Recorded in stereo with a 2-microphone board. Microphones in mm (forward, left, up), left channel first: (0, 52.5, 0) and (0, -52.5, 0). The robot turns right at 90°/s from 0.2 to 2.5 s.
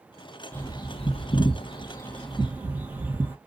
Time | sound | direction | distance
0.5 | a bird | 15° left (ahead or behind) | 0.9 m